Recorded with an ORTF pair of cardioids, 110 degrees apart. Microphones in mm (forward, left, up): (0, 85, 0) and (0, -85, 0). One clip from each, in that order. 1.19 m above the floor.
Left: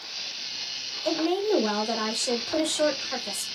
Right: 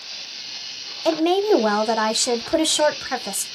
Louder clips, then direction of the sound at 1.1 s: Right 7 dB; 45° right.